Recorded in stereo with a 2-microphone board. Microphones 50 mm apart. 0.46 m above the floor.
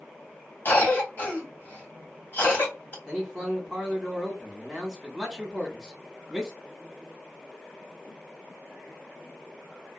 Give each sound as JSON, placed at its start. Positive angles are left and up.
{"t": 0.7, "sound": "a cough", "side_deg": 35, "distance_m": 2.0}
{"t": 3.0, "sound": "a man speaking", "side_deg": 0, "distance_m": 2.0}